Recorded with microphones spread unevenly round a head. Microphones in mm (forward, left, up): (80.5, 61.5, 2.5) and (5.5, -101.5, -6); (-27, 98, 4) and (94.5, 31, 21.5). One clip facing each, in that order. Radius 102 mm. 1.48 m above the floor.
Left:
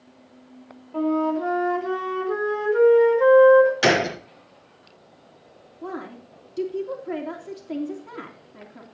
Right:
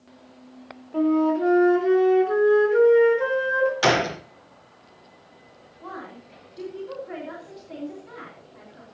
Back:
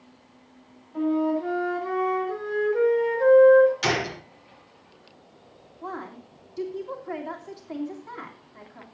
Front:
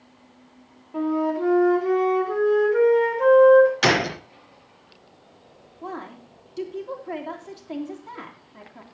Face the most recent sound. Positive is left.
turn(degrees=35)